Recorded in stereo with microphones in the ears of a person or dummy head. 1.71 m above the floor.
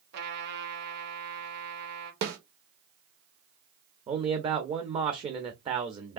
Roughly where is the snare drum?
Right.